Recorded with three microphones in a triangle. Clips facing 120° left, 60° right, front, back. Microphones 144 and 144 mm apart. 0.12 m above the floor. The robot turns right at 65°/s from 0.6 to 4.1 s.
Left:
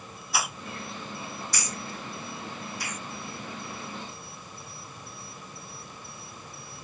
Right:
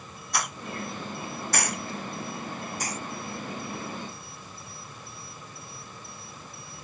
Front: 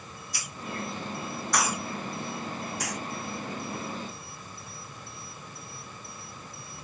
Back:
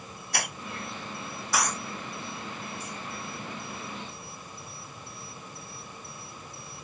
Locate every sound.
0.3 s a hiss: 155° right; by 3.0 s 5° left